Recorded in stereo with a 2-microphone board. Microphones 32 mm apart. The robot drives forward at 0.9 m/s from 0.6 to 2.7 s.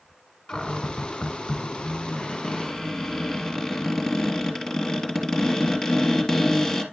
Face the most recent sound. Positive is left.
turn(degrees=10)  # may be behind; listen again after turning